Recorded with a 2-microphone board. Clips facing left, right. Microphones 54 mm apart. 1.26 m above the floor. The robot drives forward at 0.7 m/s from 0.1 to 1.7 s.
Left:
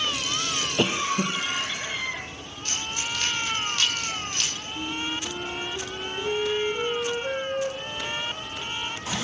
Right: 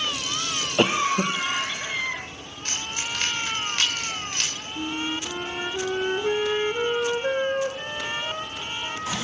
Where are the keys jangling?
50° right (ahead or behind), 3.5 m.